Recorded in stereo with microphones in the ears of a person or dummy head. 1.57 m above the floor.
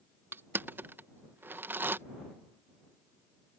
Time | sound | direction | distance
0.3 | crushing | 10° right (ahead or behind) | ?